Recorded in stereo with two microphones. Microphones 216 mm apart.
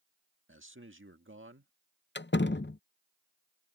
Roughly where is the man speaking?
Right.